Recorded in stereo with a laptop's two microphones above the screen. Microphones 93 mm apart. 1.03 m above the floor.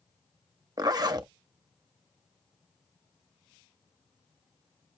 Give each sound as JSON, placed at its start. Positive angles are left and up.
{"t": 0.8, "sound": "a zipper", "side_deg": -45, "distance_m": 0.6}